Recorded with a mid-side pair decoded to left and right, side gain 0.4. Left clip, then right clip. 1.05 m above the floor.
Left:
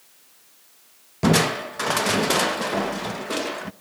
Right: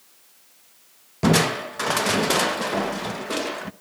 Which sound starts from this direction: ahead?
Crushing, at 1.2 s.